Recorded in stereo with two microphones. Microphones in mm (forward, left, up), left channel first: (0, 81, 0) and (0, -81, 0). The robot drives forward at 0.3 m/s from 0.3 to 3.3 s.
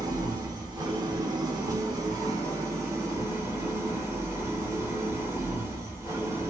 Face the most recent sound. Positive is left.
turn(degrees=-15)  # may be behind; listen again after turning